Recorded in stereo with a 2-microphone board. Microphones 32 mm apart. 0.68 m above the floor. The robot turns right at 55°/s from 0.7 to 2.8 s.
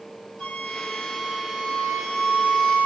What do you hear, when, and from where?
0.4 s a flute: 145° left, 1.4 m; by 2.9 s 100° right, 1.4 m